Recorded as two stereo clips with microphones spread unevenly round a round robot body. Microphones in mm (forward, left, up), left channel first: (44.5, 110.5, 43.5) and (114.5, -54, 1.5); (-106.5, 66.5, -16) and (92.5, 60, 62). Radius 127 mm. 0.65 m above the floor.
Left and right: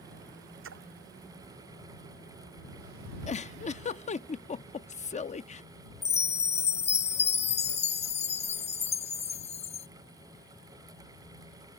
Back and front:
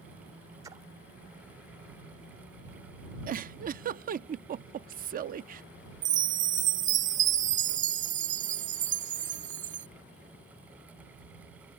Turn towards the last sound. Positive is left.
turn(degrees=60)